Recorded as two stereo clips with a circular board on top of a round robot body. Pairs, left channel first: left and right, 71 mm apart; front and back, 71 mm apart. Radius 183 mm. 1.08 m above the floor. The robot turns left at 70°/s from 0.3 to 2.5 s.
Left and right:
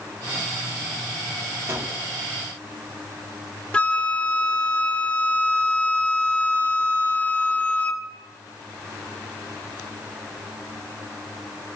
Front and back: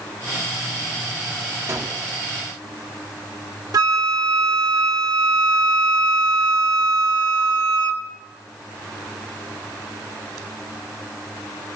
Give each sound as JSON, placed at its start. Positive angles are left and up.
{"t": 1.7, "sound": "a gunshot", "azimuth_deg": -135, "distance_m": 2.5}
{"t": 3.7, "sound": "a flute", "azimuth_deg": 160, "distance_m": 1.9}